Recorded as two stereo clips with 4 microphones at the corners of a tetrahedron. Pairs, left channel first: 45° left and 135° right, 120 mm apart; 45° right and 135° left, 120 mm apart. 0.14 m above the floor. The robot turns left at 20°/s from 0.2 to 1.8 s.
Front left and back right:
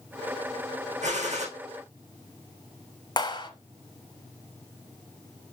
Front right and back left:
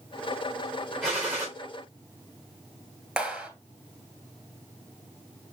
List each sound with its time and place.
1.0 s a gunshot: 140° right, 4.5 m; by 1.5 s 150° right, 4.5 m
3.2 s a clap: 60° left, 1.4 m